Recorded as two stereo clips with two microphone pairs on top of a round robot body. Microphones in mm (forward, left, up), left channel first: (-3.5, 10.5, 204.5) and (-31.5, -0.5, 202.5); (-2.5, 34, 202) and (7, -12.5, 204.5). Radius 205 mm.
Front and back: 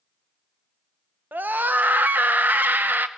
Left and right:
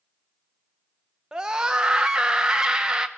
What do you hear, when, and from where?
1.3 s a scream: 155° right, 1.0 m